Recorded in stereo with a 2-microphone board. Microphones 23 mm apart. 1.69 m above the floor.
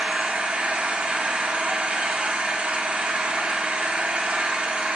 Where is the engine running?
70° right (ahead or behind), 1.8 m.